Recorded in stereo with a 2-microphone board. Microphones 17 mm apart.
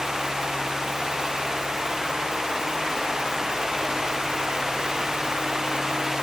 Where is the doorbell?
No doorbell in this recording.